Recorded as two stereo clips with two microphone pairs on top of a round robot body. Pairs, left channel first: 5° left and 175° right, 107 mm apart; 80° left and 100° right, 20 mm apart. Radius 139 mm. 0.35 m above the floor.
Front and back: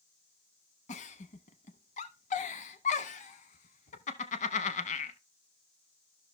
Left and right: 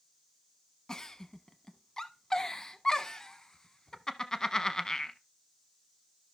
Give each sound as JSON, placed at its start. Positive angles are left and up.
{"t": 0.9, "sound": "a giggle", "azimuth_deg": 20, "distance_m": 0.6}